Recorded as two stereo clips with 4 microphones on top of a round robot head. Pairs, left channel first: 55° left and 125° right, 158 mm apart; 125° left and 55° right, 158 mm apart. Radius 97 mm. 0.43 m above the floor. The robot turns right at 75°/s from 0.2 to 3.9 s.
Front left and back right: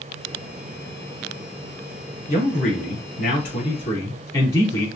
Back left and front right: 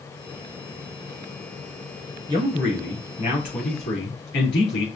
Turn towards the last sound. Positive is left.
turn(degrees=120)